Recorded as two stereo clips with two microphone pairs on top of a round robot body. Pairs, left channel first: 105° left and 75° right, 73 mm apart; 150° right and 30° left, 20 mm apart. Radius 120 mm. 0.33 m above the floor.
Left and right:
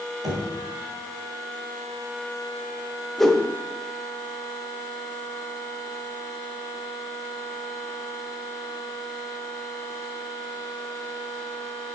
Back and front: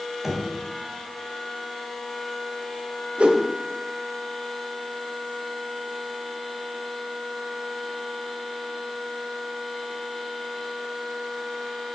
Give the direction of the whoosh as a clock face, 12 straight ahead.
11 o'clock.